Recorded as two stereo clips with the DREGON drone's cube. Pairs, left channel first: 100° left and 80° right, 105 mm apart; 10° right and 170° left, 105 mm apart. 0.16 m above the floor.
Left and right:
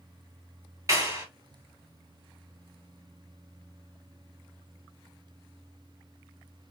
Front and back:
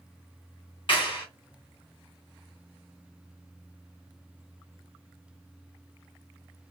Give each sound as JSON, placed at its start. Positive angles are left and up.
{"t": 0.9, "sound": "a clap", "azimuth_deg": -35, "distance_m": 1.9}